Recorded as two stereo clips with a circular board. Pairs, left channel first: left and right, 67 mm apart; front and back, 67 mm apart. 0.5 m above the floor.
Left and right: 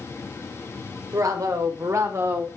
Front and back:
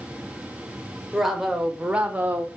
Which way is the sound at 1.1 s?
95° right.